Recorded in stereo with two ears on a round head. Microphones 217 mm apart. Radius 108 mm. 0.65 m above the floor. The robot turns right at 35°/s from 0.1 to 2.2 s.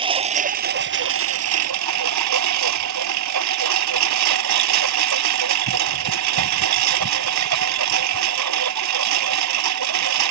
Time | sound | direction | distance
0.0 | a lawn mower | 155° right | ?